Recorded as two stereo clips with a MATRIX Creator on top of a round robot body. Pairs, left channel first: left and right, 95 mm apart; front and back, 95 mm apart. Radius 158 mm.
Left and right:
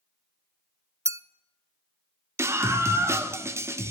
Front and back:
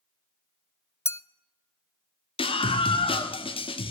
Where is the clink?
45° right, 0.6 m.